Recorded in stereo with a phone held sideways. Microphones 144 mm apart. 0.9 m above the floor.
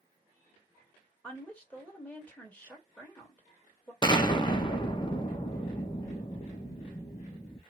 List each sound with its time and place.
1.2 s a woman speaking: 10° left (ahead or behind), 1.9 m
4.0 s an explosion: 30° left (ahead or behind), 0.7 m